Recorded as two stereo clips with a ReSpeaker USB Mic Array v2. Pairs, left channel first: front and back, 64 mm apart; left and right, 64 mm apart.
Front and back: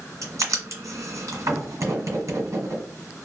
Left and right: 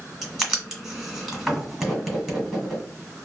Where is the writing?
175° right, 1.5 m.